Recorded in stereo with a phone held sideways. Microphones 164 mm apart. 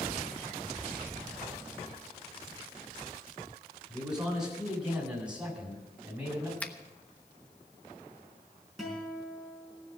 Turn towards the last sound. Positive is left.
turn(degrees=0)  # may be behind; listen again after turning